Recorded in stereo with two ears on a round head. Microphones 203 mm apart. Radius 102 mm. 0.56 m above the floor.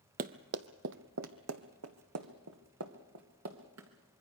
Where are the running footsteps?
40° right (ahead or behind), 0.8 m; by 3.9 s 65° right (ahead or behind), 2.5 m.